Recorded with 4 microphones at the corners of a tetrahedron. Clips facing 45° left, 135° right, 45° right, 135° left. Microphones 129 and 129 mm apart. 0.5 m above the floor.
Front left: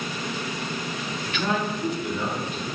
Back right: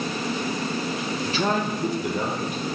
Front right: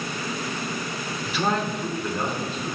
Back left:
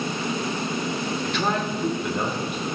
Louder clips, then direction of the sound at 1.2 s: Back right 2 dB, front right 2 dB; 120° right.